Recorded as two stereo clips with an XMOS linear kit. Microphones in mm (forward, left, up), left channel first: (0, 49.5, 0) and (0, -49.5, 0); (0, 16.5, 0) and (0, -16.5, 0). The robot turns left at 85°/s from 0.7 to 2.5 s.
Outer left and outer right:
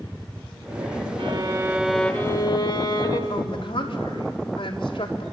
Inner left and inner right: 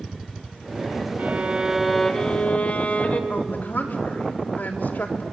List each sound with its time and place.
1.2 s a violin: 120° right, 1.6 m; by 3.2 s 130° left, 1.6 m
3.3 s a woman speaking: 70° left (ahead or behind), 3.5 m